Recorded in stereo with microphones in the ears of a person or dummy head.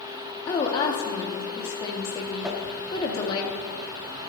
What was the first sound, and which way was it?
A woman speaking, 25° left (ahead or behind).